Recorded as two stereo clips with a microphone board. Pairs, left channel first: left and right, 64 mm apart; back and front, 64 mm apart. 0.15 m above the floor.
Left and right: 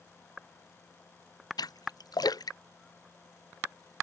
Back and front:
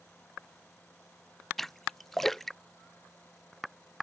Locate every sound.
1.6 s a splash: 95° left